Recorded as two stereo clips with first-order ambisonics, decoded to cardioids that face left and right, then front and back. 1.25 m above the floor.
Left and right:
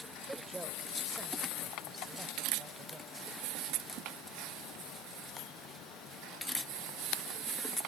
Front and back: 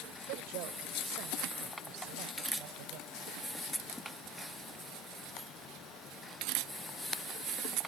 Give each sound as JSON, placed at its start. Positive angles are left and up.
{"t": 0.3, "sound": "a woman speaking", "azimuth_deg": -170}